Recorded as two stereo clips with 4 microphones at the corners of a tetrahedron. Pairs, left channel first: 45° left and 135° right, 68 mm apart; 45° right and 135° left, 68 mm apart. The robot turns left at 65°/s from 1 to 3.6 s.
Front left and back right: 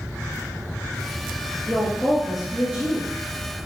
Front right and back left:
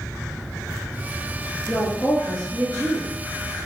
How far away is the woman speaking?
About 1.1 m.